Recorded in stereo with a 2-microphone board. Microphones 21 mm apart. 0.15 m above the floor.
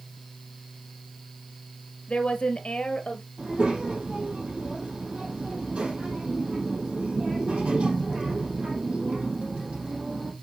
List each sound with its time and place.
2.1 s a woman speaking: 45° left (ahead or behind), 2.5 m; by 3.3 s 50° left (ahead or behind), 2 m
3.4 s a child speaking: 75° right (ahead or behind), 5 m